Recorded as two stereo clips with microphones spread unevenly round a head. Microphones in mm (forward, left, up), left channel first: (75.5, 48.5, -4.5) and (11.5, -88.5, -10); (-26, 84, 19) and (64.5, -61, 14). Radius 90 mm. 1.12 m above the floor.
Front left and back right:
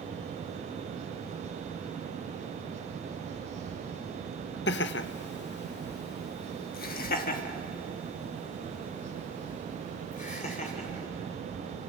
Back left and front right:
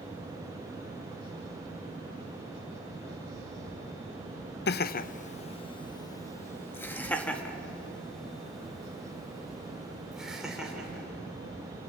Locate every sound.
4.7 s laughter: 95° left, 0.7 m; by 11.1 s 30° left, 4 m